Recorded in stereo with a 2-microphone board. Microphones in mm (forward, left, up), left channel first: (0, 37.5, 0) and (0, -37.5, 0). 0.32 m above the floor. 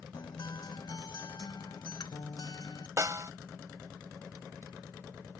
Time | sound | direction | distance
0.1 | a guitar | 60° left (ahead or behind) | ?
3.0 | a snare drum | 45° right (ahead or behind) | ?